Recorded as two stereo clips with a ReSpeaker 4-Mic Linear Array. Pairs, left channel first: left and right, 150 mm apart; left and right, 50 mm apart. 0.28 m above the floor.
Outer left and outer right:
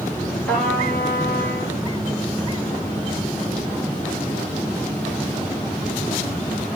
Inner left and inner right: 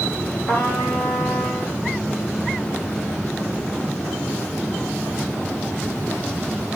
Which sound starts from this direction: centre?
A trumpet, at 0.5 s.